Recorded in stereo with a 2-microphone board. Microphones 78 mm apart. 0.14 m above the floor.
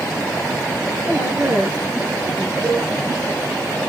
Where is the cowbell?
45° right (ahead or behind), 5.5 m.